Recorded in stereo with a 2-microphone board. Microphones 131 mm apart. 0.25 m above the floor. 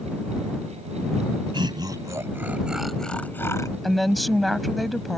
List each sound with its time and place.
1.5 s laughter: 40° right (ahead or behind); by 3.7 s 25° left (ahead or behind)
3.8 s a woman speaking: centre (ahead or behind)